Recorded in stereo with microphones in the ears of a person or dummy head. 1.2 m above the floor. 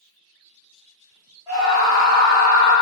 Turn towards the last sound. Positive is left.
turn(degrees=25)  # may be behind; listen again after turning